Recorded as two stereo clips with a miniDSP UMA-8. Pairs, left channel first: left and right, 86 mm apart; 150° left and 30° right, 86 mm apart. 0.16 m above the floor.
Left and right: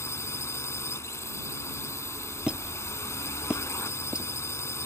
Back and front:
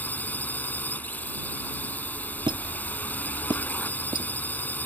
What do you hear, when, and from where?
0.0 s a drone: 100° left
2.5 s a squeak: 10° right